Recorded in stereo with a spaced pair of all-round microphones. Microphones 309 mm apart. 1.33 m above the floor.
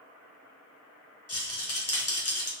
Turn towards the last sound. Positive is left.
turn(degrees=50)  # may be behind; listen again after turning